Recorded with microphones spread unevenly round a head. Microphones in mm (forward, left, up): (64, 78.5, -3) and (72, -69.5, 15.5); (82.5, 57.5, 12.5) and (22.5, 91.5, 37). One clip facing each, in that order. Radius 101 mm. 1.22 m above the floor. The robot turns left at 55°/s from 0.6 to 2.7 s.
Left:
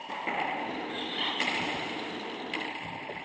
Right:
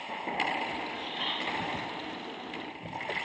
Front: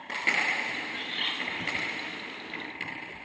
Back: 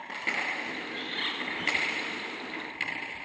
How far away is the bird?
About 7 m.